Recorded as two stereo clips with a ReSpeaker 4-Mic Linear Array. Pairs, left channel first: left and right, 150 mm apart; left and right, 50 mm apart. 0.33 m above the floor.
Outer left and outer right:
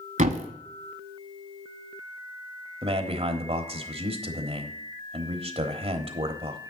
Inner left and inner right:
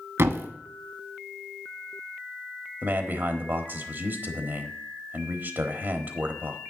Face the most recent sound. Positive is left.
turn(degrees=-40)  # may be behind; listen again after turning